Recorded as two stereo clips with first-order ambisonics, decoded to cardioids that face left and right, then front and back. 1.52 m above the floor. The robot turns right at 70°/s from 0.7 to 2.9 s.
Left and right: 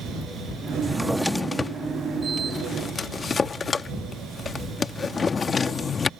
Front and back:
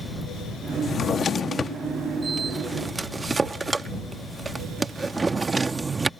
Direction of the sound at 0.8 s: 20° right.